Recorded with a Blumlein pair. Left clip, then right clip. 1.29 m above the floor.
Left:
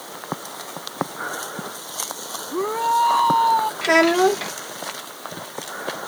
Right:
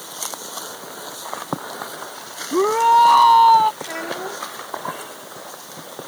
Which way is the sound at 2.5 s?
20° right.